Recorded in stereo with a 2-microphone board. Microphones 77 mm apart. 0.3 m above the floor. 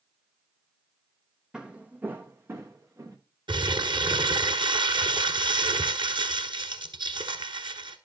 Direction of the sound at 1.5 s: 10° right (ahead or behind).